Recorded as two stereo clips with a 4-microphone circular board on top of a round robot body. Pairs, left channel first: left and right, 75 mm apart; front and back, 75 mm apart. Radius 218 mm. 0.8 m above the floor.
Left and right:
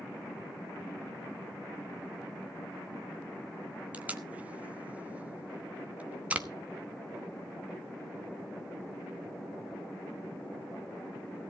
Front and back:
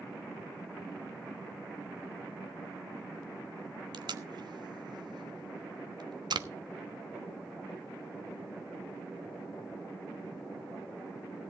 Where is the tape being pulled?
160° right, 1.3 m.